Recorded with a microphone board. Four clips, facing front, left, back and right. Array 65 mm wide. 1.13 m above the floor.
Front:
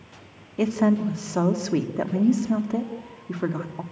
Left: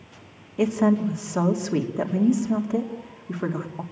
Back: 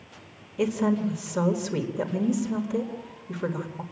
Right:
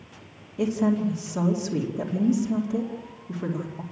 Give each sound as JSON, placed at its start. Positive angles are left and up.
{"t": 0.6, "sound": "a woman speaking", "azimuth_deg": 45, "distance_m": 2.5}